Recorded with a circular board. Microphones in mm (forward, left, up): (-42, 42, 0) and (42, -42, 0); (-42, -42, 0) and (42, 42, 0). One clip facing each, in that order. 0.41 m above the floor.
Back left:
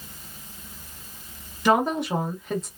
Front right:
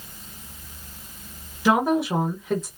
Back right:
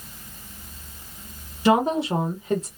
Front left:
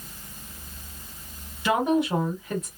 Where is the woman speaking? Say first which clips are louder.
Front right 1 dB, back right 3 dB; 130° right, 0.9 m.